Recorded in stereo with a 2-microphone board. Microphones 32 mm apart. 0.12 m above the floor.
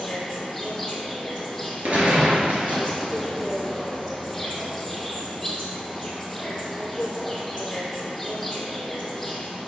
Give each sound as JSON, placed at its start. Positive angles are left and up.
{"t": 0.0, "sound": "an insect", "side_deg": 5, "distance_m": 1.3}
{"t": 1.8, "sound": "a gunshot", "side_deg": -50, "distance_m": 1.5}